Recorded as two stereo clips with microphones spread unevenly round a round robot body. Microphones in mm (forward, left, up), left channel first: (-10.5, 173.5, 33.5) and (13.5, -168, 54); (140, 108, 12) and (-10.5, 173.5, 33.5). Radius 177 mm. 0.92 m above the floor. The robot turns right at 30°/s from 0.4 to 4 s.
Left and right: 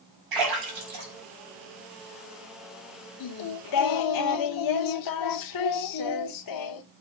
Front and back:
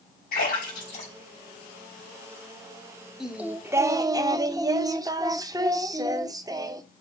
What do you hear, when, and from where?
0.3 s a splash: 60° right, 5.5 m; by 2.3 s 5° right, 5.5 m
3.2 s singing: 75° left, 0.7 m; by 6.8 s 100° left, 0.7 m